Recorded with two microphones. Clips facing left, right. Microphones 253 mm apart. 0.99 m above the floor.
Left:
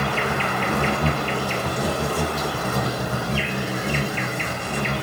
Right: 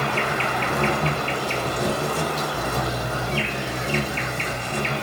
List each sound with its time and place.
0.0 s an insect: 50° left (ahead or behind), 1.3 m